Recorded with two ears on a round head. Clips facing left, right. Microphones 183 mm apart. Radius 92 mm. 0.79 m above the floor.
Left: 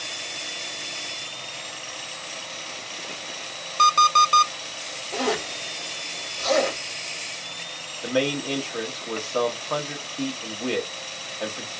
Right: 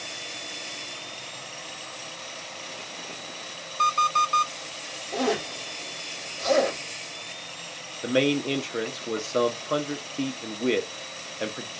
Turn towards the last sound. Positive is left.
turn(degrees=-30)  # may be behind; listen again after turning